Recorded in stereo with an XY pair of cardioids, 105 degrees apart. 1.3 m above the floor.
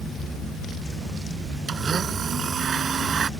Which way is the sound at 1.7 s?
40° right.